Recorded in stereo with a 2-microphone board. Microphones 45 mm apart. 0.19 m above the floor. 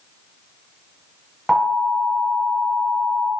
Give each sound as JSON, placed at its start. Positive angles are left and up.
{"t": 1.5, "sound": "an alarm", "side_deg": 0, "distance_m": 1.3}